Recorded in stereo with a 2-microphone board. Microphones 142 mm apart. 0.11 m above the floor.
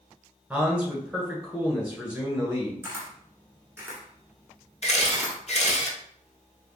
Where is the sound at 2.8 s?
15° right (ahead or behind), 1.5 m.